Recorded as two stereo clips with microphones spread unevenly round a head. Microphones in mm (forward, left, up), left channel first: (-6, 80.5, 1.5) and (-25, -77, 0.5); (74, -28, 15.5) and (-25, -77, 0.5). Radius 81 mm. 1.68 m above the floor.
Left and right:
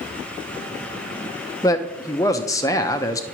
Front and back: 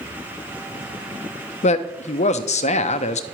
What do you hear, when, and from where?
1.6 s a man speaking: 10° left, 0.7 m